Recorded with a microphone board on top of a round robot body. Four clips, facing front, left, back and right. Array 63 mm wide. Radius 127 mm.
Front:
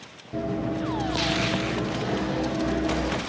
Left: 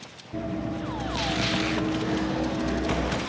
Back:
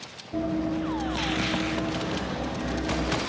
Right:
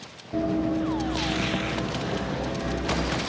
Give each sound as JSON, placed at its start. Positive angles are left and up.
{"t": 0.3, "sound": "running footsteps", "azimuth_deg": -60, "distance_m": 0.8}